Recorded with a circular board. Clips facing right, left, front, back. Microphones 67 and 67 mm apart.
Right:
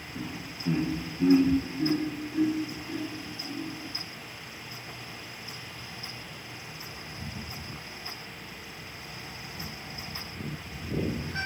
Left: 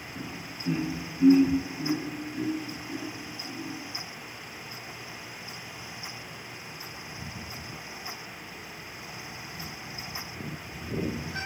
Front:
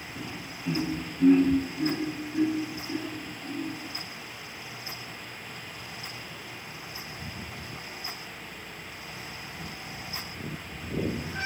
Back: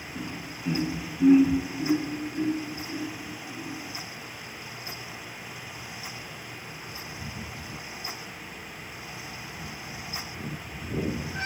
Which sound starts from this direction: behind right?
Laughter, at 0.1 s.